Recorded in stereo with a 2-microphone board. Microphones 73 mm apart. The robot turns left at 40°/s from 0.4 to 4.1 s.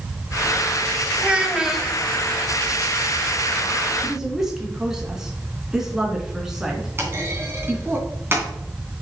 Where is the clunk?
35° right (ahead or behind), 2.5 m.